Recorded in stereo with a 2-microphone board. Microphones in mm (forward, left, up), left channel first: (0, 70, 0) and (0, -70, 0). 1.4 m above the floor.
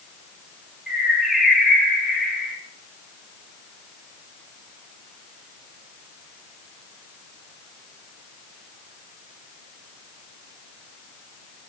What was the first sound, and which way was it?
A bird, centre (ahead or behind).